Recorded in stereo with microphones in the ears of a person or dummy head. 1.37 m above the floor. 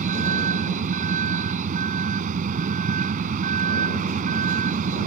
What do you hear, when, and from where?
0.0 s a vehicle: 45° right (ahead or behind)